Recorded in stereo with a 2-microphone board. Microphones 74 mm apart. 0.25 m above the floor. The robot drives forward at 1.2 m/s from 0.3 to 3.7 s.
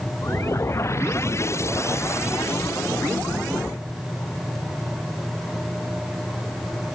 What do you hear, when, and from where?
Only background noise.